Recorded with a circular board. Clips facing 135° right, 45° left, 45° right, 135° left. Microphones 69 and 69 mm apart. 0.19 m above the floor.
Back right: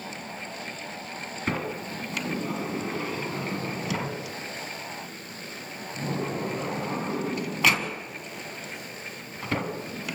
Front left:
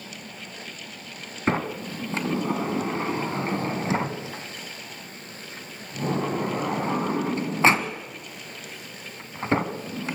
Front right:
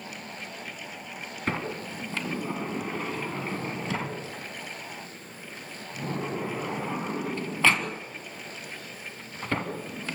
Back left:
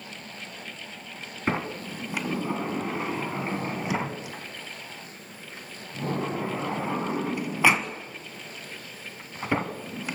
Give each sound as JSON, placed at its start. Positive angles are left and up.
{"t": 1.5, "sound": "a sliding door", "azimuth_deg": 70, "distance_m": 1.5}